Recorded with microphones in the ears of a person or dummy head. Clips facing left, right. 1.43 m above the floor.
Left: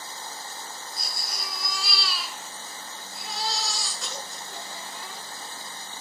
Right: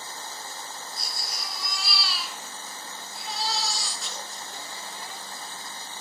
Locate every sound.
0.9 s a baby crying: 55° left (ahead or behind), 6.5 m